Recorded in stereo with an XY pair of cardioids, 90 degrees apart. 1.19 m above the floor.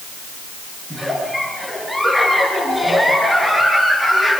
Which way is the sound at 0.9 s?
10° right.